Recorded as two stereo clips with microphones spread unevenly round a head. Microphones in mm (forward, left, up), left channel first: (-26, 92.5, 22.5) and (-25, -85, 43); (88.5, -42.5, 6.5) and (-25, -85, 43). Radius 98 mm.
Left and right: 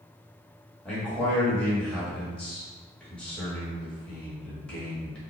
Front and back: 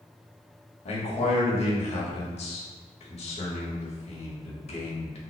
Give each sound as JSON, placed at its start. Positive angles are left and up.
{"t": 0.8, "sound": "a man speaking", "azimuth_deg": 5, "distance_m": 1.3}